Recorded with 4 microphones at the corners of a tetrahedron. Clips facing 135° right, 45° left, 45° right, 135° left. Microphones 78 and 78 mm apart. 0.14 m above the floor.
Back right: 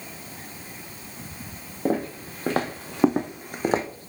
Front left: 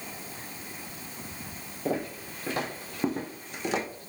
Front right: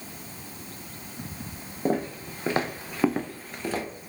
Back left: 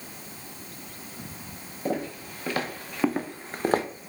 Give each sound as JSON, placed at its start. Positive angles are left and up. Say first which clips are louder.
{"t": 1.9, "sound": "footsteps", "louder": "back right 5 dB, front right 3 dB", "azimuth_deg": -95, "distance_m": 1.3}